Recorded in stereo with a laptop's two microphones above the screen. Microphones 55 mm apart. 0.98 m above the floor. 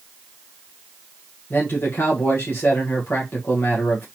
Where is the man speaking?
40° left (ahead or behind), 1.0 m.